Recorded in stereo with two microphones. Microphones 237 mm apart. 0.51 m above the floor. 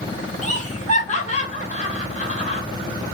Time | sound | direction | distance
0.4 | laughter | 30° left (ahead or behind) | 1.1 m